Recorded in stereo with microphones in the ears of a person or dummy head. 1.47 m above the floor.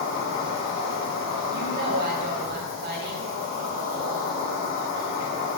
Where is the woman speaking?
50° right (ahead or behind), 0.6 m.